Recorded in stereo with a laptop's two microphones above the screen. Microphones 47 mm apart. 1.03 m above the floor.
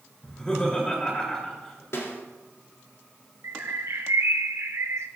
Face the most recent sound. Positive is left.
turn(degrees=-75)  # may be behind; listen again after turning